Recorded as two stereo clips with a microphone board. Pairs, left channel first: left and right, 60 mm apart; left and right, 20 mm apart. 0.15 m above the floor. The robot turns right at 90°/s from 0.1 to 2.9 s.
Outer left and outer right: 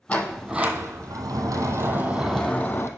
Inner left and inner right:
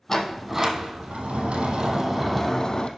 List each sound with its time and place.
0.1 s a sliding door: 155° left, 0.9 m; by 2.9 s 45° left, 0.9 m